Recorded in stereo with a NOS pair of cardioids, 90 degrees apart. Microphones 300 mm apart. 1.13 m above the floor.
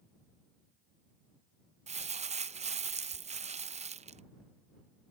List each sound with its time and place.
1.9 s crumpling: 25° right